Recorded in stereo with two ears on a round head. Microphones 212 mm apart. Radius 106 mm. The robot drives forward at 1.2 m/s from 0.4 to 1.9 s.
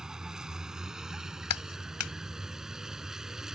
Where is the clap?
70° left (ahead or behind); by 2.1 s 75° left (ahead or behind).